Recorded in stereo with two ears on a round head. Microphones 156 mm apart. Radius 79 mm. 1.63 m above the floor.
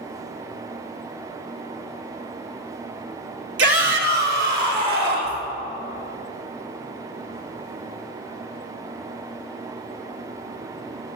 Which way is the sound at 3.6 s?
75° right (ahead or behind).